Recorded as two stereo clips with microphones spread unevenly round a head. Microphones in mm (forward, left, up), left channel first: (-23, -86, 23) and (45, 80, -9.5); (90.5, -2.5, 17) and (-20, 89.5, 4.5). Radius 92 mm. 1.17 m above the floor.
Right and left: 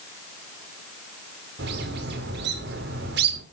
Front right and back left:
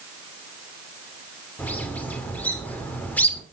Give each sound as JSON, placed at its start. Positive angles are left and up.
{"t": 1.6, "sound": "a bird", "azimuth_deg": 40, "distance_m": 2.5}